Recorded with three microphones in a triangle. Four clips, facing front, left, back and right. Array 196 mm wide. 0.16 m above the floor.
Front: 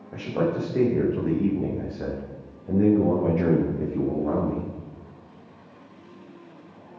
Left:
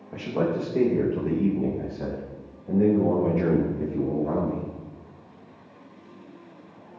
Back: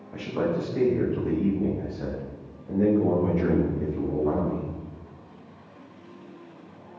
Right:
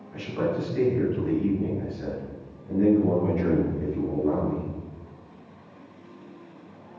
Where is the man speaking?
50° left, 9 m; by 4.7 s 30° left, 10.5 m.